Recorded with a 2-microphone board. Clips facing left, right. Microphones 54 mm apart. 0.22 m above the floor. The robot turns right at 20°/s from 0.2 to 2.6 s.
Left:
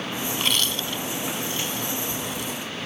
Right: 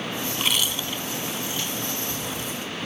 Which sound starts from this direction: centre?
Chewing, at 0.3 s.